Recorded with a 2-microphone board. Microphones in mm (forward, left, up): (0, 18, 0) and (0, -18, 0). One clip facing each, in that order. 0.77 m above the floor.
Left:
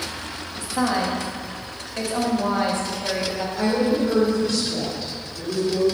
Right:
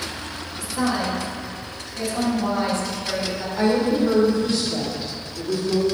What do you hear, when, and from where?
0.6 s a woman speaking: 40° left (ahead or behind), 1.3 m
3.6 s a woman speaking: 15° right (ahead or behind), 2 m